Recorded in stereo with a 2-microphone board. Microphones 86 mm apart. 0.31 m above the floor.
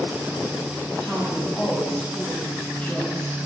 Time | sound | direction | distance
1.0 | a woman speaking | 10° left (ahead or behind) | 6 m